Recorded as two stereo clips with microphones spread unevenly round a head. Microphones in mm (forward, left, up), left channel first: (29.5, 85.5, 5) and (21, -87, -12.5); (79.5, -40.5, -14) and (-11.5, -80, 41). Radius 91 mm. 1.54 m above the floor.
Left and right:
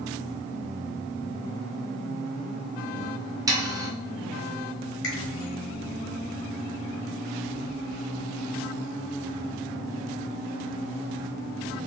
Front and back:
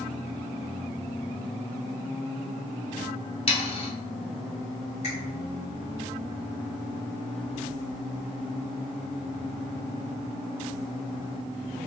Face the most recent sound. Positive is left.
turn(degrees=75)